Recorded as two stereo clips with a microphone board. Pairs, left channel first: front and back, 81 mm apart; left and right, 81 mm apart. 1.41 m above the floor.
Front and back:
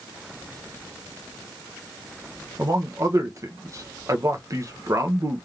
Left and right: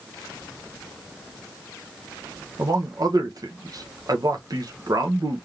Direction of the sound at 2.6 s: 130° right.